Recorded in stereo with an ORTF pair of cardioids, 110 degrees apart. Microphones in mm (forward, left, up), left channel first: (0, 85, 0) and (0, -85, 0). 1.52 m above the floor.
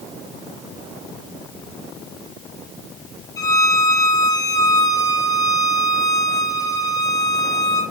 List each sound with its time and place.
3.4 s a violin: 20° left, 0.8 m